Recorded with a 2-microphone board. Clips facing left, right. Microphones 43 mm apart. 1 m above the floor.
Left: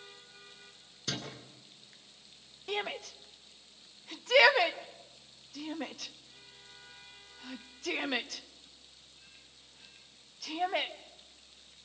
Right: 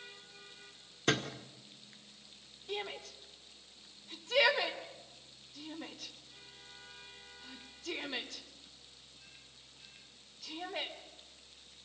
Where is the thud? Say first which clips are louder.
Right 7 dB; 40° right (ahead or behind), 2.0 m.